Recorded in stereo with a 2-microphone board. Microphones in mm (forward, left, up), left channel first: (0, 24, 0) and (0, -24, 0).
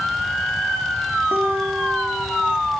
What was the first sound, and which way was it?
A guitar, 70° right (ahead or behind).